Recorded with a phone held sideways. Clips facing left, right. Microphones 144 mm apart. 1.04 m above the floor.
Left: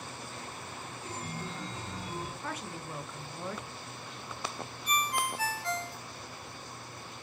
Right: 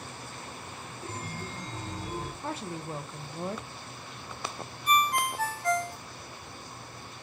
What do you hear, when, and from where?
1.0 s a chime: 40° right (ahead or behind), 1.0 m
2.4 s a woman speaking: 30° right (ahead or behind), 0.6 m
4.9 s a ringtone: 50° right (ahead or behind), 0.5 m